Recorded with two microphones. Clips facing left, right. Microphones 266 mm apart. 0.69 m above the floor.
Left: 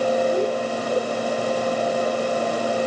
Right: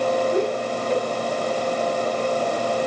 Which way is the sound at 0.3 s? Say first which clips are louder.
Even; 20° right (ahead or behind).